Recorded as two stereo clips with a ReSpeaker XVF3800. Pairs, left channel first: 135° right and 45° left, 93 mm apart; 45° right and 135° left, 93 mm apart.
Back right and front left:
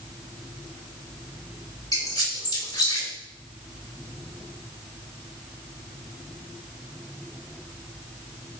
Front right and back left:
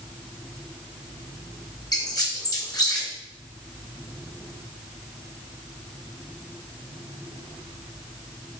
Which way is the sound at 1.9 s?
90° right.